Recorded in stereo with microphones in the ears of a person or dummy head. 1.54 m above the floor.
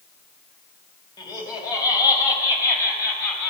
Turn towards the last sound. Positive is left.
turn(degrees=10)  # may be behind; listen again after turning